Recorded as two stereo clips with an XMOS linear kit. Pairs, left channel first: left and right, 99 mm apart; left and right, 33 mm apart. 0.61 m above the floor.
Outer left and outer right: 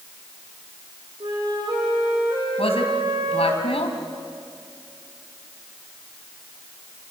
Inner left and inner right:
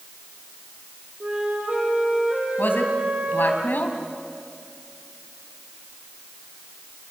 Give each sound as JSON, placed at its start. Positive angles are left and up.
{"t": 1.2, "sound": "a flute", "side_deg": -50, "distance_m": 7.0}
{"t": 2.6, "sound": "a man speaking", "side_deg": 80, "distance_m": 3.5}